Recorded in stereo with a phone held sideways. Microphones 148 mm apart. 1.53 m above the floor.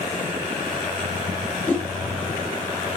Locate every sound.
1.7 s a whoosh: 10° left (ahead or behind), 0.7 m